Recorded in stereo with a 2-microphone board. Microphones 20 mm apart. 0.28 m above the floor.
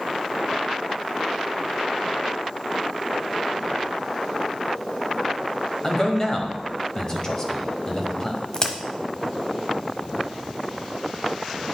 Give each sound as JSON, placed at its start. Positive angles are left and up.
{"t": 5.8, "sound": "a man speaking", "side_deg": 25, "distance_m": 1.5}
{"t": 8.5, "sound": "a crack", "side_deg": 30, "distance_m": 1.3}